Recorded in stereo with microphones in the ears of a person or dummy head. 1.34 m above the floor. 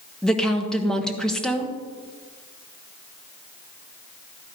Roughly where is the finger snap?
I don't hear a finger snap.